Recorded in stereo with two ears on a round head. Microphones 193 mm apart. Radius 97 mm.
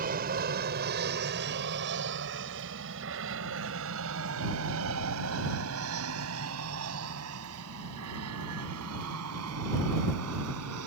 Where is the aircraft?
45° right (ahead or behind); by 10.9 s 80° right.